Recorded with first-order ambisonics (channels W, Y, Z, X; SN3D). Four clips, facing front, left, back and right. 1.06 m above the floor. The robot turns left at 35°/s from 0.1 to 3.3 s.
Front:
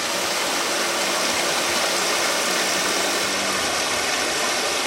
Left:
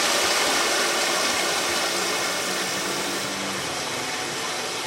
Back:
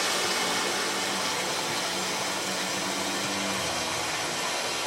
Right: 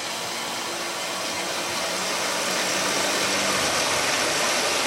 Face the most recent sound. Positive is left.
turn(degrees=-45)